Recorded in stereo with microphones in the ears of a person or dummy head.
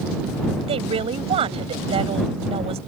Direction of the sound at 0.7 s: 35° right (ahead or behind).